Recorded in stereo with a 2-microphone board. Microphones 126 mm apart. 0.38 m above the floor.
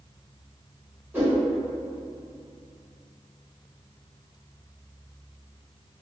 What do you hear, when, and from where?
1.1 s a whoosh: 15° right (ahead or behind), 1.8 m